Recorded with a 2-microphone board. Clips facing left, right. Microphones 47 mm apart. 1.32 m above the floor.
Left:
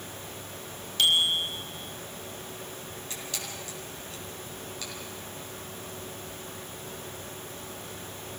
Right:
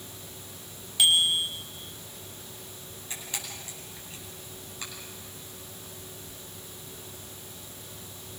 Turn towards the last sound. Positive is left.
turn(degrees=-25)  # may be behind; listen again after turning